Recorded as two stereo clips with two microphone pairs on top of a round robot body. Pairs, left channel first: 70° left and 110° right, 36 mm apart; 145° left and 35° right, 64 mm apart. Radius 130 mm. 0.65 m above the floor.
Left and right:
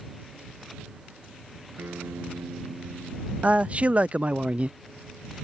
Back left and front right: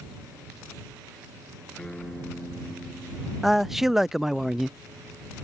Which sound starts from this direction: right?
A man speaking, at 3.4 s.